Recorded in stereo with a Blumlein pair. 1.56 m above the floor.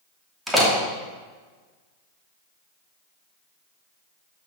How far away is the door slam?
About 2.5 m.